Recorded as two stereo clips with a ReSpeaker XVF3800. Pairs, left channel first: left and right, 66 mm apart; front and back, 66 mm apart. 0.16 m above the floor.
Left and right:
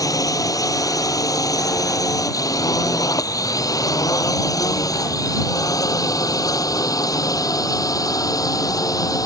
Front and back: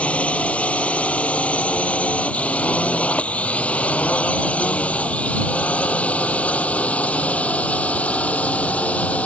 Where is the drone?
70° left.